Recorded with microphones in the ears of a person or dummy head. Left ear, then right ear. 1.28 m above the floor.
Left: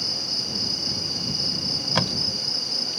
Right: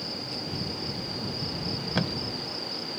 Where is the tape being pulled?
30° left (ahead or behind).